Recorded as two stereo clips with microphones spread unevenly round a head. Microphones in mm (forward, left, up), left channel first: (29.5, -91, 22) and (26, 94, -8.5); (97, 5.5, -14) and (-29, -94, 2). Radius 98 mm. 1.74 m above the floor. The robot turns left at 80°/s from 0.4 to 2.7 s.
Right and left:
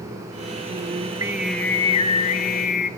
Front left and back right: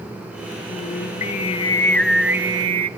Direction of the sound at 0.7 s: 55° left.